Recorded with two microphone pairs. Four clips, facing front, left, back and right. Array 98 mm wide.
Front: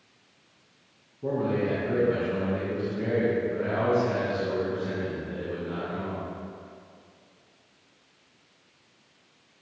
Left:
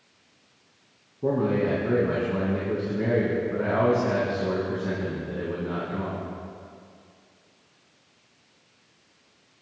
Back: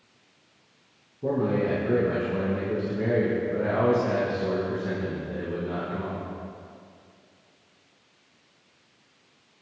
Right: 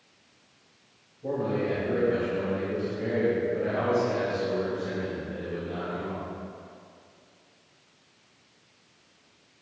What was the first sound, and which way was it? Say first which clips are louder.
A man speaking: left 4 dB, back 2 dB; 95° left.